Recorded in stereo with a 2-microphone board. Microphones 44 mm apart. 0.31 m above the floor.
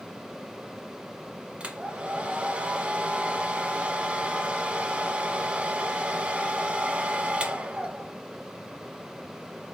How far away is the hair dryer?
About 0.7 m.